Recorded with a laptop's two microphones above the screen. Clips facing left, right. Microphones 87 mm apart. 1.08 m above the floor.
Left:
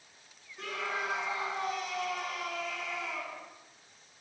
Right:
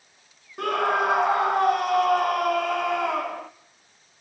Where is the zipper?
No zipper in this recording.